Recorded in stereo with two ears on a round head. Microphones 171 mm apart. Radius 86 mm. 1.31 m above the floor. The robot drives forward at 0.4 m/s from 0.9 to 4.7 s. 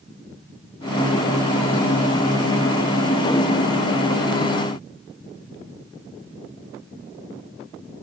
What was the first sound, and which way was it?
Only background noise.